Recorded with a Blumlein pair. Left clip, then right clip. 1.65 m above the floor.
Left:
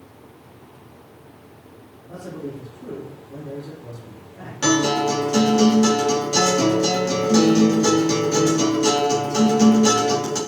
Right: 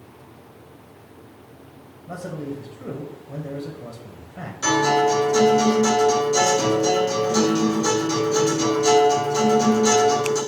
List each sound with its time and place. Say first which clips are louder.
2.1 s a man speaking: right 2 dB; 35° right, 1.1 m
4.6 s a guitar: right 1 dB; 55° left, 2.5 m